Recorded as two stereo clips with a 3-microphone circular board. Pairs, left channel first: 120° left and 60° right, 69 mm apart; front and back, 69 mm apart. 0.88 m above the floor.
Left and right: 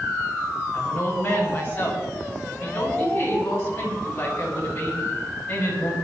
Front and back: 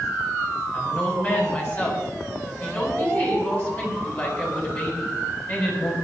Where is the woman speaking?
60° left, 8 m.